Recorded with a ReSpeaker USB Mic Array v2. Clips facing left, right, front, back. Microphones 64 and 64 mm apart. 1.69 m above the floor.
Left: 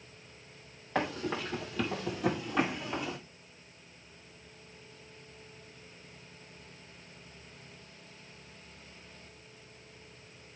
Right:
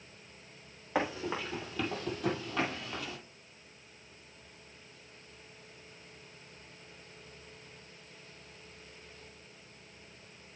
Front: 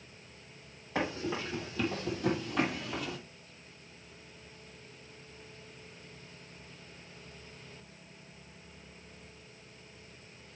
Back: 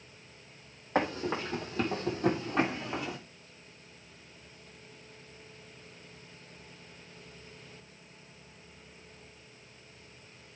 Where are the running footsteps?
165° right, 2.5 m; by 3.2 s 140° left, 2.0 m.